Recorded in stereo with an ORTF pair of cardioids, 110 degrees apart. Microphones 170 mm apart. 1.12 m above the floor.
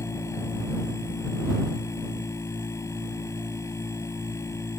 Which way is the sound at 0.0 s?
15° left.